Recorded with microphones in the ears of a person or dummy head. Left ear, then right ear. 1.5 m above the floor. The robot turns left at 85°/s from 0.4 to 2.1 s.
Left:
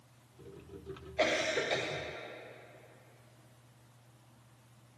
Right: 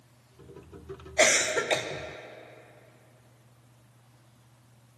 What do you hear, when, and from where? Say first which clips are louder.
1.2 s a cough: right 7 dB; 100° right, 0.9 m; by 1.9 s 160° right, 0.9 m